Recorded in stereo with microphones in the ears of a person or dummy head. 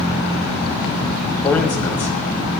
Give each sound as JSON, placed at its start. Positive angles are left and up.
{"t": 1.4, "sound": "a man speaking", "side_deg": 5, "distance_m": 1.2}